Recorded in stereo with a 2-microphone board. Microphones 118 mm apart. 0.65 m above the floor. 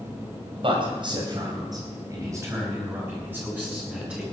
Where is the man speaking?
50° right (ahead or behind), 4 m; by 4.2 s 10° right (ahead or behind), 6 m.